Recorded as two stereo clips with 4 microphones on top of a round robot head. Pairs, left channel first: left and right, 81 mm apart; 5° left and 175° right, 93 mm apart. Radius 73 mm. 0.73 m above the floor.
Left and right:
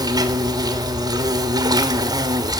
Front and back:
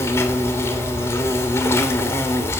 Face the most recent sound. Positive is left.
turn(degrees=-55)